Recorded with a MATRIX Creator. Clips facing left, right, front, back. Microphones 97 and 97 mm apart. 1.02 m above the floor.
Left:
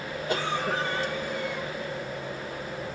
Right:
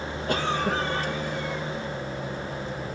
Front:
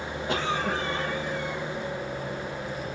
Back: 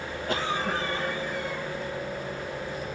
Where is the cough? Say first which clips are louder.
Right 2 dB, front 1 dB; 85° right, 1.3 m.